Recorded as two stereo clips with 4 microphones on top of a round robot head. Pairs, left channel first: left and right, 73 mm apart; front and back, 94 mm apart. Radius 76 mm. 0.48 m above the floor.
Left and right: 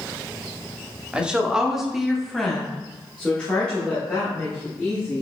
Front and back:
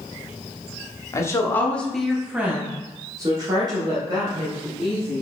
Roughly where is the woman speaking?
Ahead.